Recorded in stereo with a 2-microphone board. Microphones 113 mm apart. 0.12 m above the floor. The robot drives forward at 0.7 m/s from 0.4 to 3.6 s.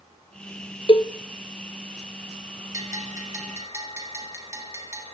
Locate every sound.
0.9 s a cowbell: 50° left (ahead or behind), 1.3 m; by 1.1 s 45° left (ahead or behind), 1.4 m
2.7 s a bell: 30° right (ahead or behind), 4.5 m; by 5.0 s 25° right (ahead or behind), 5 m